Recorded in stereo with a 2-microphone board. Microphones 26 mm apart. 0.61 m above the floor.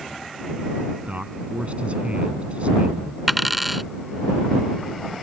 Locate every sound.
1.1 s a man speaking: 55° right (ahead or behind)
3.3 s a dropped coin: centre (ahead or behind)